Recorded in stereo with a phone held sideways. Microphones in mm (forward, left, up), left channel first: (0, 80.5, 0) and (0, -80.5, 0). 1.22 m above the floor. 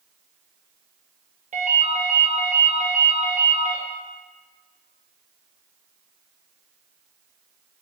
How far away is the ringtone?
About 0.7 m.